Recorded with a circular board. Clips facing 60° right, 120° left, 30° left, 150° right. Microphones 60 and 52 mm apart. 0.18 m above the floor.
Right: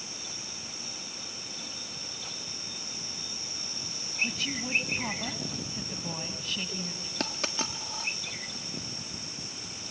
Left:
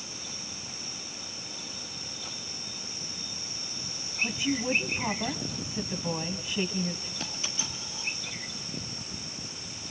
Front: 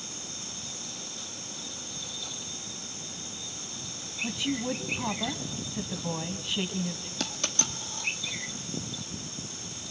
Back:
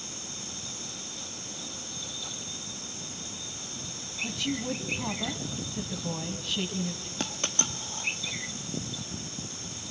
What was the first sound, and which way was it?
A woman speaking, 85° left.